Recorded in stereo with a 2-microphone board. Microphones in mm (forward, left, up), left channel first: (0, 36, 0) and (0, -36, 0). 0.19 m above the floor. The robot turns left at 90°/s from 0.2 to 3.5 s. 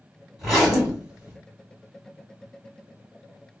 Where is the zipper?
Centre (ahead or behind), 1.7 m; by 1.4 s 20° right (ahead or behind), 1.7 m.